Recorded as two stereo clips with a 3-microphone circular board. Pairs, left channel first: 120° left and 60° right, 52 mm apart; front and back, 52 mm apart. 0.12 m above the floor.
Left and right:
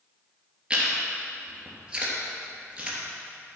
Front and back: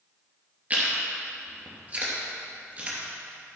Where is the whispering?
No whispering in this recording.